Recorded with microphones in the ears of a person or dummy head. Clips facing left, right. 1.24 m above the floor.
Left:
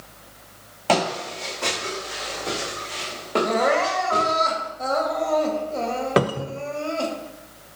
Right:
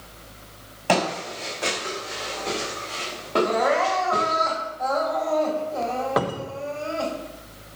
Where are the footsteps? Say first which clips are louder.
Left 1 dB; 5° right (ahead or behind), 5.5 m; by 4.4 s 20° left (ahead or behind), 6 m.